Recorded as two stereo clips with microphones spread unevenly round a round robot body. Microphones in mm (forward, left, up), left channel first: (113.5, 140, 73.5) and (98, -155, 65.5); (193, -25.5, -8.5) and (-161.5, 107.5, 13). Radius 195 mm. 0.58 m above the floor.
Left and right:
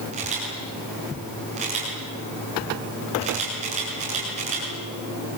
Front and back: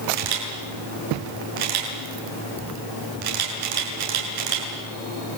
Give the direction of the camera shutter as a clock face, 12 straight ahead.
5 o'clock.